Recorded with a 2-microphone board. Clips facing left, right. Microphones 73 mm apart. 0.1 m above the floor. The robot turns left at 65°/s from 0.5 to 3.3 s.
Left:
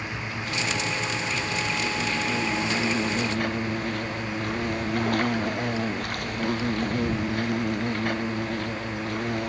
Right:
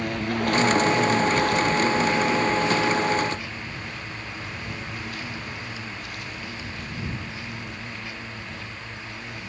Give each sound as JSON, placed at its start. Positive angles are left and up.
{"t": 0.0, "sound": "an insect", "azimuth_deg": -55}